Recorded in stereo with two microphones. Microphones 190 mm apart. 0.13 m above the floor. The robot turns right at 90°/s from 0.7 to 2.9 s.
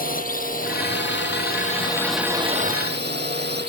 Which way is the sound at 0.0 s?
50° left (ahead or behind).